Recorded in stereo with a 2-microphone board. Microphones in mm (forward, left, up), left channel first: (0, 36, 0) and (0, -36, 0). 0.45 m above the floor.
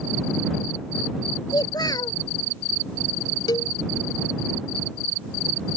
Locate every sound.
1.5 s a child speaking: 70° left (ahead or behind)
3.5 s a cowbell: 75° left (ahead or behind)